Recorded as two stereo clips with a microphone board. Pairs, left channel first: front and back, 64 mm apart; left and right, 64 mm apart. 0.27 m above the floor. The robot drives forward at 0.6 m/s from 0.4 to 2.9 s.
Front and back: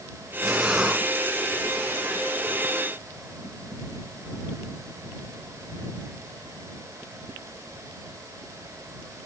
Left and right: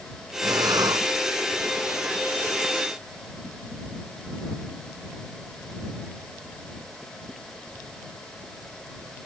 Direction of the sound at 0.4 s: 95° right.